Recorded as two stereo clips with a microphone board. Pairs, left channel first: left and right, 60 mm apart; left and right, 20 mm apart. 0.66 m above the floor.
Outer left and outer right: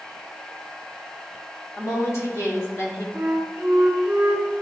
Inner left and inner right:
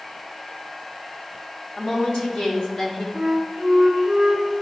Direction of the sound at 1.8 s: 60° left (ahead or behind).